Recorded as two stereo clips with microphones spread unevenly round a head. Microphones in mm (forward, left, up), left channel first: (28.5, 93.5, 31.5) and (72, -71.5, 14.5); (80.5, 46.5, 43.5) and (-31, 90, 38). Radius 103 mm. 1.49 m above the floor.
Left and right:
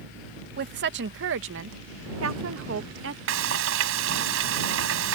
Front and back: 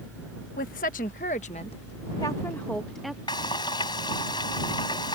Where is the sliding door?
No sliding door in this recording.